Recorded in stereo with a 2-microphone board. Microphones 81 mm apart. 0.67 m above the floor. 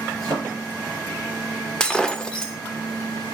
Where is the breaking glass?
10° left (ahead or behind), 0.7 m.